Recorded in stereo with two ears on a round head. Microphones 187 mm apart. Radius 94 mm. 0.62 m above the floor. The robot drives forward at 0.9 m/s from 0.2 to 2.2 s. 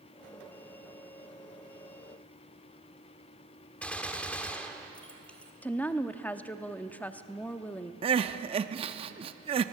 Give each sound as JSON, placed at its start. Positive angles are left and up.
{"t": 3.8, "sound": "a gunshot", "side_deg": 5, "distance_m": 1.2}
{"t": 5.6, "sound": "a woman speaking", "side_deg": 10, "distance_m": 0.7}
{"t": 8.0, "sound": "crying", "side_deg": -25, "distance_m": 0.6}